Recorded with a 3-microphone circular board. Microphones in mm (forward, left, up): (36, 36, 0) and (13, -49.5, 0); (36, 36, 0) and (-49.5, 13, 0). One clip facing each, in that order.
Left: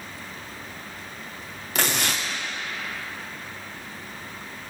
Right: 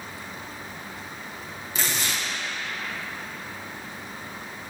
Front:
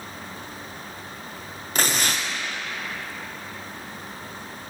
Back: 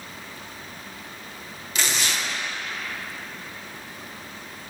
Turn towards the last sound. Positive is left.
turn(degrees=60)